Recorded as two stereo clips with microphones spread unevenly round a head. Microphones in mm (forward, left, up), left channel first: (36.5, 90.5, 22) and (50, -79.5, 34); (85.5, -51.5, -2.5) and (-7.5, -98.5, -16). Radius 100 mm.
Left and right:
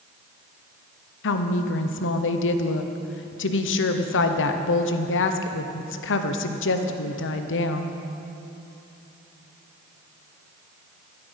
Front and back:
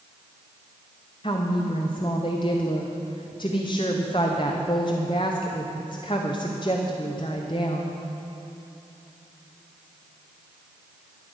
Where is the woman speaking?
95° left, 0.9 m.